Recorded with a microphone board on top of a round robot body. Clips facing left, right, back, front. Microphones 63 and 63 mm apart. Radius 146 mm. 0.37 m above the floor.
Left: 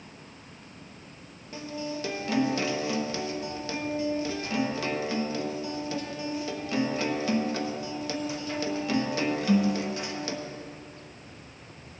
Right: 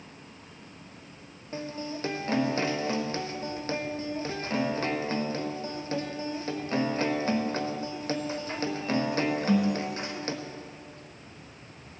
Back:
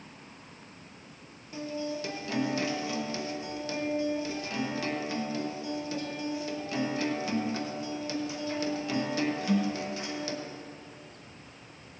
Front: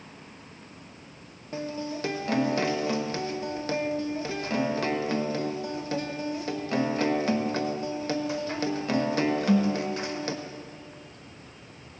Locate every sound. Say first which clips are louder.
1.5 s a guitar: left 1 dB, front 2 dB; 40° right, 1.0 m